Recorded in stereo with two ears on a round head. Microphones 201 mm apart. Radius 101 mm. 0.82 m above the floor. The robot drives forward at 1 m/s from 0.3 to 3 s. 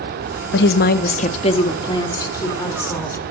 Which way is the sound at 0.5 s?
50° left (ahead or behind).